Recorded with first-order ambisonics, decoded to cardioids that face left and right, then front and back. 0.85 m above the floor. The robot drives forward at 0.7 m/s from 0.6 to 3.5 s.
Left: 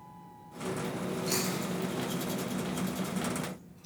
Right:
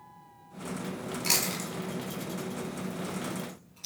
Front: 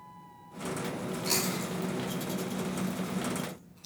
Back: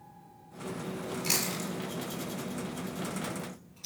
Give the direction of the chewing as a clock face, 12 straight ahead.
4 o'clock.